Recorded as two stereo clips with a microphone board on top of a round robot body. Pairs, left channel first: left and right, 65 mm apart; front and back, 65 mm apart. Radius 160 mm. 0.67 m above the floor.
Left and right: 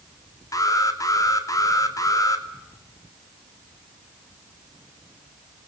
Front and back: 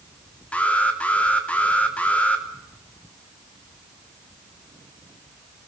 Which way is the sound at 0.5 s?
70° left.